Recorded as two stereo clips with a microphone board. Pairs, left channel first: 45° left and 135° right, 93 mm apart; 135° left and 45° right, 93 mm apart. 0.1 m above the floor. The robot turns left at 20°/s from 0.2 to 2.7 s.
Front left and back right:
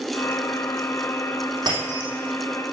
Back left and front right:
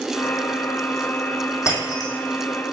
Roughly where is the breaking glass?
Behind.